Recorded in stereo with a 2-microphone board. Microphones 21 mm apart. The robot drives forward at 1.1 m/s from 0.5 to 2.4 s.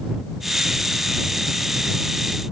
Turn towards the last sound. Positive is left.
No sound to turn to.